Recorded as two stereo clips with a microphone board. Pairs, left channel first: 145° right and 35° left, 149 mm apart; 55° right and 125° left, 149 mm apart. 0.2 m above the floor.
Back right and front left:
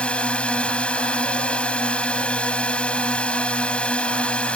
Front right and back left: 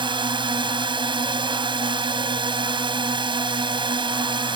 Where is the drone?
140° left.